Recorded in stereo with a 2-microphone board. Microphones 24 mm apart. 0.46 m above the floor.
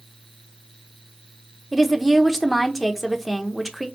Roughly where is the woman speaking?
Centre.